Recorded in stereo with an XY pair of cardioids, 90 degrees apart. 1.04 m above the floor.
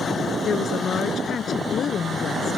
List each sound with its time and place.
0.5 s a woman speaking: 60° left